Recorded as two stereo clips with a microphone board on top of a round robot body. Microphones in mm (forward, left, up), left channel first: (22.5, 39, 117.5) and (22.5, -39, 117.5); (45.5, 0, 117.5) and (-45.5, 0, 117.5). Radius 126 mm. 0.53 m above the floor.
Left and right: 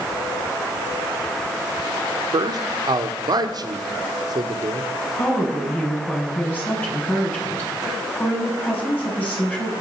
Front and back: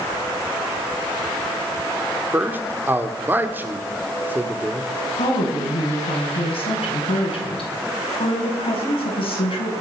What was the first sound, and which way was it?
A man speaking, 115° right.